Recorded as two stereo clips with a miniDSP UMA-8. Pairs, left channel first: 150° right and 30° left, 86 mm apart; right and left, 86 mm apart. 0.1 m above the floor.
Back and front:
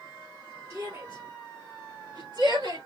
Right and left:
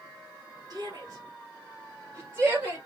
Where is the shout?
65° left, 2.5 m; by 2.9 s 25° left, 2.5 m.